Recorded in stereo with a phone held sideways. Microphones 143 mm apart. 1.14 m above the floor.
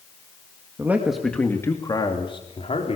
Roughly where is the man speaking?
Centre.